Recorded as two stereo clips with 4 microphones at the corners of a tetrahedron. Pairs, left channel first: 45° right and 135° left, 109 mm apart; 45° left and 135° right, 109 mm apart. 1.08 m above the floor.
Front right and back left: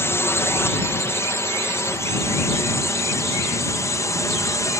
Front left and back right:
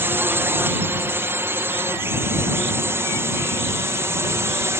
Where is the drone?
85° right.